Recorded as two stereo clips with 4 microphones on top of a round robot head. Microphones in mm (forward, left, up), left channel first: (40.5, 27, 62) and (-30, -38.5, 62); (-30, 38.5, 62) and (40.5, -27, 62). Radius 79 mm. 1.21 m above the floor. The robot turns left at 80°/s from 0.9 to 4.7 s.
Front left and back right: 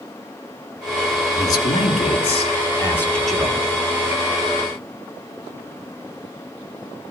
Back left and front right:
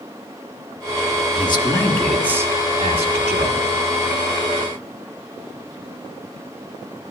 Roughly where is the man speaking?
Left.